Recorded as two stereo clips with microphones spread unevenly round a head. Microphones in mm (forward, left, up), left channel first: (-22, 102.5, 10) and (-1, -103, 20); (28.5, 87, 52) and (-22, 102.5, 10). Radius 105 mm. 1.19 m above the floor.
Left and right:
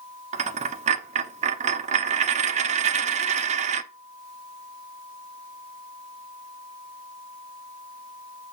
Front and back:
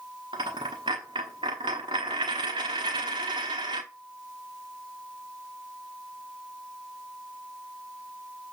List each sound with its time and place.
0.3 s a dropped coin: 125° right, 0.8 m